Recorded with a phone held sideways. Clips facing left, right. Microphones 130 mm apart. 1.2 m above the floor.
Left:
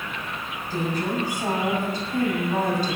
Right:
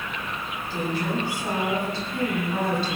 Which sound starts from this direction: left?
A woman speaking, at 0.7 s.